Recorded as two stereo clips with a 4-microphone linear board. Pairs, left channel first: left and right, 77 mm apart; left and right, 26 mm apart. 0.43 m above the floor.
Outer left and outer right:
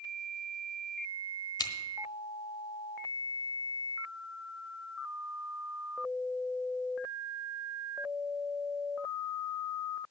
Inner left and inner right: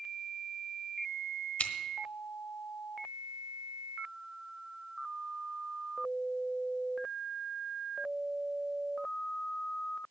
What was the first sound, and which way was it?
Scissors, 65° left (ahead or behind).